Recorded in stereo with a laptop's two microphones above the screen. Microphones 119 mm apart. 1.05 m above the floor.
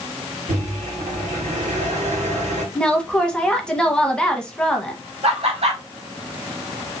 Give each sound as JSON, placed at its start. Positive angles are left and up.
{"t": 0.5, "sound": "a microwave", "side_deg": -85, "distance_m": 2.5}
{"t": 2.8, "sound": "a woman speaking", "side_deg": 5, "distance_m": 0.9}
{"t": 5.2, "sound": "laughter", "side_deg": -60, "distance_m": 1.7}